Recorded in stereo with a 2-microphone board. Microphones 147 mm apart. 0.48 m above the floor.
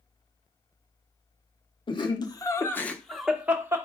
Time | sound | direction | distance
1.9 | laughter | 35° left (ahead or behind) | 0.9 m